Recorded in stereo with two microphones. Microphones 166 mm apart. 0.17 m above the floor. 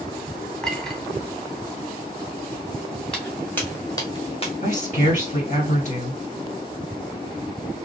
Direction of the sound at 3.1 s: 5° left (ahead or behind).